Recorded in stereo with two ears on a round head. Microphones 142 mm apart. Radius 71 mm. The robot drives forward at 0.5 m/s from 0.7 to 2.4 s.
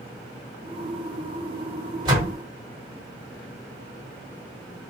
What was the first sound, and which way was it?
A door slam, 30° right (ahead or behind).